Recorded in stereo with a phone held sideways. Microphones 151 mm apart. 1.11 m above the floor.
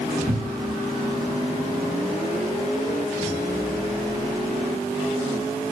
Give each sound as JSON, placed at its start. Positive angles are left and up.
{"t": 0.3, "sound": "a cupboard door", "side_deg": -20, "distance_m": 1.7}